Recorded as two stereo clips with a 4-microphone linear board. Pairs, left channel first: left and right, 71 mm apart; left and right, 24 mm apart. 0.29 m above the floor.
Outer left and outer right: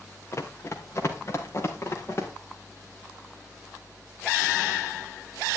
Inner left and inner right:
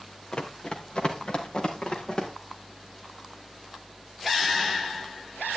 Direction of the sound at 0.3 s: 40° left (ahead or behind).